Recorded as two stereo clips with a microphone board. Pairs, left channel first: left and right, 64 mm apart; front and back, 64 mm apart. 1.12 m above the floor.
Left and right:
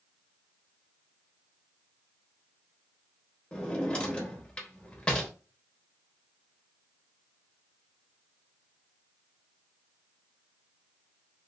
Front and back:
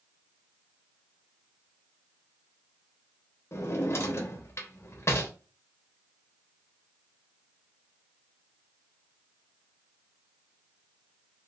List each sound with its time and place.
3.5 s a drawer: 20° left, 0.8 m